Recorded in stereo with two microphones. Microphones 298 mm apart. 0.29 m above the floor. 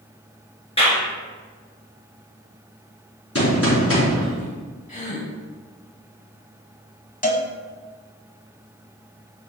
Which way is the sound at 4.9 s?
25° left (ahead or behind).